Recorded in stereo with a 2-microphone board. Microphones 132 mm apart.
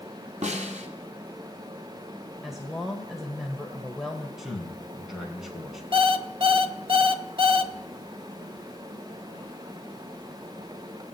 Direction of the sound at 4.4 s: 5° right (ahead or behind).